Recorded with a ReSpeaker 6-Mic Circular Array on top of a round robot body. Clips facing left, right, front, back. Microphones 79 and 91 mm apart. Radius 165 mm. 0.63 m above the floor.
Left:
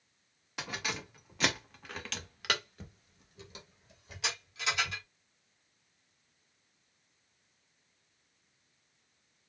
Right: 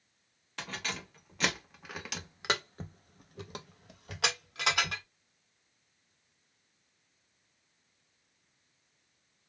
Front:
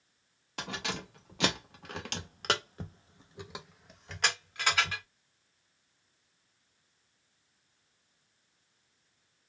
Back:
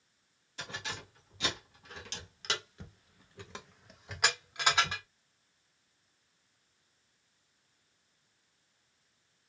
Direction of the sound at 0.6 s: 10° left.